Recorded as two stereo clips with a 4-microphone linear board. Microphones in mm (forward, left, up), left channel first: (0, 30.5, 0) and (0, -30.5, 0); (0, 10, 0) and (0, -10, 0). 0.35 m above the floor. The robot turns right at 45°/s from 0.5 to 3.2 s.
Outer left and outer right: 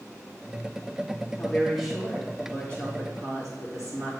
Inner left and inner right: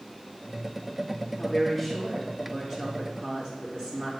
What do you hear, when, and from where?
1.4 s a woman speaking: 160° left, 3 m; by 4.1 s 115° right, 3 m